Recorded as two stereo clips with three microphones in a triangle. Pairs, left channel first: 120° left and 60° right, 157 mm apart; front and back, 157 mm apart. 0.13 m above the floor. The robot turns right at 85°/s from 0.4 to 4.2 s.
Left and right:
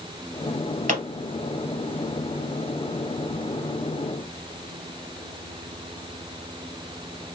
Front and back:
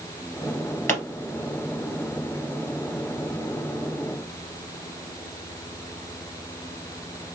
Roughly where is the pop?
Right.